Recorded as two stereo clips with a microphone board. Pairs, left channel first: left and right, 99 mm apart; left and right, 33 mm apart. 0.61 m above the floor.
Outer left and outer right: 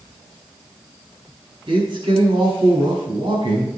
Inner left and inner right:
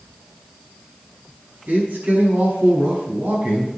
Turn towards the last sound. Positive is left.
turn(degrees=-55)  # may be behind; listen again after turning